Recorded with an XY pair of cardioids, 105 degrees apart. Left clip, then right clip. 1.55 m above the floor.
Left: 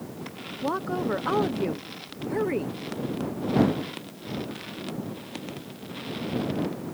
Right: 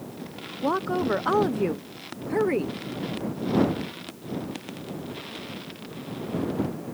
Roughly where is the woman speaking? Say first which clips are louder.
Right 3 dB; ahead.